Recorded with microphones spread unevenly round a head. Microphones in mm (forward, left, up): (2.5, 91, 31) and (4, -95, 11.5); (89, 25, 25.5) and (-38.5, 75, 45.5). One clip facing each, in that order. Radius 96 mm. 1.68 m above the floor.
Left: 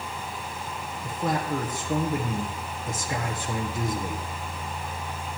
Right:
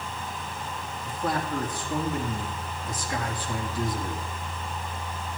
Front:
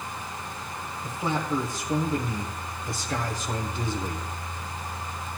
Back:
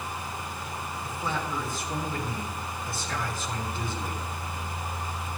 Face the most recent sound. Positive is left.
turn(degrees=50)